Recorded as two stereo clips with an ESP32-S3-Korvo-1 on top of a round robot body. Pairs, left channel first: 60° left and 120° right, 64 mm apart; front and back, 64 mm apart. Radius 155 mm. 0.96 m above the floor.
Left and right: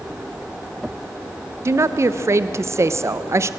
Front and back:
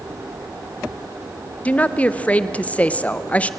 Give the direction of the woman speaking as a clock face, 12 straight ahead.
2 o'clock.